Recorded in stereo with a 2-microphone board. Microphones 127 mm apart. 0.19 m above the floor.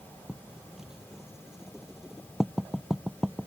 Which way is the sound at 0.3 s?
5° right (ahead or behind).